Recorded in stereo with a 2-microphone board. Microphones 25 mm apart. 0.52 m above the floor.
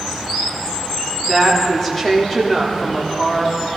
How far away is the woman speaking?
About 1.1 m.